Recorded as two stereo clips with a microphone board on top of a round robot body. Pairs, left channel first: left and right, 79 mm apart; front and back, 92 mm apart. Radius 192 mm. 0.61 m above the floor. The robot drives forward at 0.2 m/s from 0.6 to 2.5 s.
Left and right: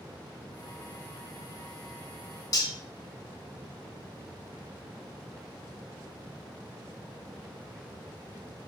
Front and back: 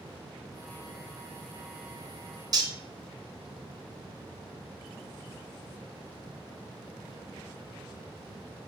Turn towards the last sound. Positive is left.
turn(degrees=135)